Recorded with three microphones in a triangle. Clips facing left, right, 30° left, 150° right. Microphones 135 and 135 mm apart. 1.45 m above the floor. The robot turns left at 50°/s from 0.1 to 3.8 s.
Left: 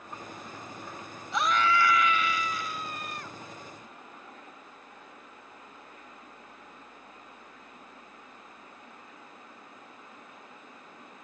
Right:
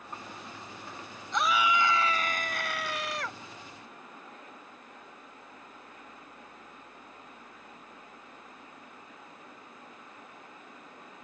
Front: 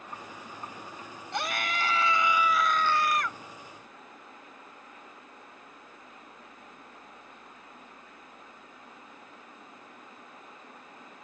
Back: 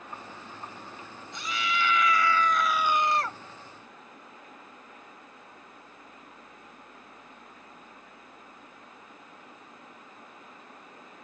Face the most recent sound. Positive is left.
turn(degrees=-120)